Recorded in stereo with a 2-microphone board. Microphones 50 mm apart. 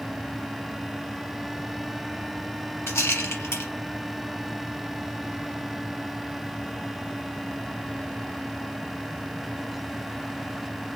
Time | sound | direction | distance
2.9 | a rattle | 65° left (ahead or behind) | 1.3 m